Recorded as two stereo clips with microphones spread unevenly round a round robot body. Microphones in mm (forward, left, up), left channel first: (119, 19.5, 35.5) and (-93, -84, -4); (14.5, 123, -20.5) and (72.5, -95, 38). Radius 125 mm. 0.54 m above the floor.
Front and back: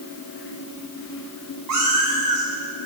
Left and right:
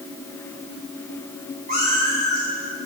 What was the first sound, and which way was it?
A cat meowing, 135° right.